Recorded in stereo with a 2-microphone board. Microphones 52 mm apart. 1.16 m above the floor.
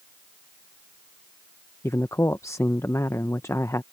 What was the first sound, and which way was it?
A man speaking, 65° left (ahead or behind).